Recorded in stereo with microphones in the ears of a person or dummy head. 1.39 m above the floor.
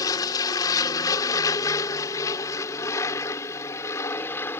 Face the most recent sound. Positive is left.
turn(degrees=10)  # may be behind; listen again after turning